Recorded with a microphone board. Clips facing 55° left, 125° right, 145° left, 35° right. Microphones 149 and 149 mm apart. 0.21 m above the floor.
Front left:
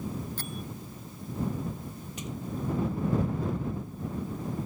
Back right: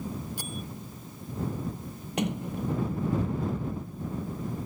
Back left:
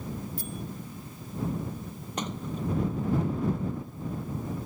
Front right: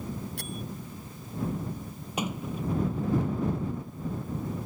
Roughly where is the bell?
Ahead right.